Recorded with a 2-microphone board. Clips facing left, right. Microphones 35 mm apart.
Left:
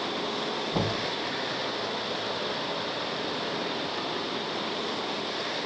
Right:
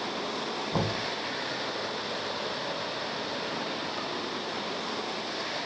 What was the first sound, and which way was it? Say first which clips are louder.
Knocking: even; 60° right (ahead or behind).